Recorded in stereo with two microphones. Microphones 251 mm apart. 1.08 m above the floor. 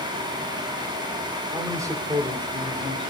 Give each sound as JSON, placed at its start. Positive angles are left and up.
{"t": 1.5, "sound": "a man speaking", "side_deg": -10, "distance_m": 2.5}